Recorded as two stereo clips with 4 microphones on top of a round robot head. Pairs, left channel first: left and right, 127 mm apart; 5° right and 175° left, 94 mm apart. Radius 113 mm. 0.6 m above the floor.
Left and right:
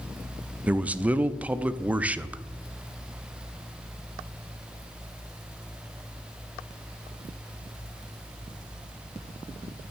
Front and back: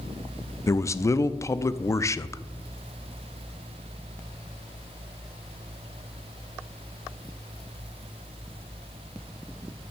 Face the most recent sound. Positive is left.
turn(degrees=-20)